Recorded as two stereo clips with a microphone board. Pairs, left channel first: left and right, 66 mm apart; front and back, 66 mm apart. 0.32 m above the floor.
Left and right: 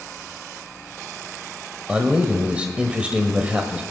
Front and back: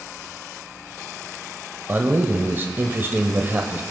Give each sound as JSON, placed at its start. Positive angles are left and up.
{"t": 1.9, "sound": "a man speaking", "azimuth_deg": -150, "distance_m": 1.2}